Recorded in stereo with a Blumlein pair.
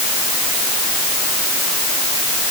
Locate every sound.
Only background noise.